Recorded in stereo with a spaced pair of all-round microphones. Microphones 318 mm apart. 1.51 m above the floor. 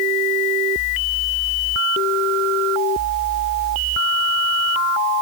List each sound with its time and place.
Only background noise.